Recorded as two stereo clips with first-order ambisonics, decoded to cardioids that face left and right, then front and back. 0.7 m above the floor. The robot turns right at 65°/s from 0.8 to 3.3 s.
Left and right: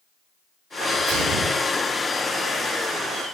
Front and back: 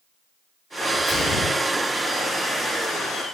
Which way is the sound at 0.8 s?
80° right.